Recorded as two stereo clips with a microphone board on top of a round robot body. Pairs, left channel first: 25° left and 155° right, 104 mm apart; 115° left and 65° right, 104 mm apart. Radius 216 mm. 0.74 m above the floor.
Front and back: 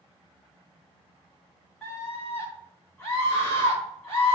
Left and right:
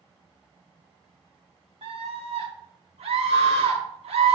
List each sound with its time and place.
1.8 s a scream: 55° right, 1.9 m